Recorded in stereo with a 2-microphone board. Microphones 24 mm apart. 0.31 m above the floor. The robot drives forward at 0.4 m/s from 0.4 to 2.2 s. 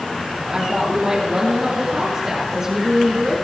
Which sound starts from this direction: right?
A woman speaking, at 0.5 s.